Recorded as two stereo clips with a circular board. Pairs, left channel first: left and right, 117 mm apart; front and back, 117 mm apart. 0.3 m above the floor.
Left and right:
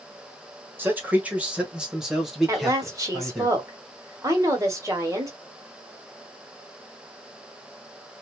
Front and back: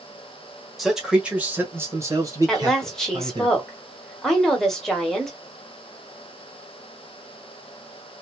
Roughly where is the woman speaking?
Right.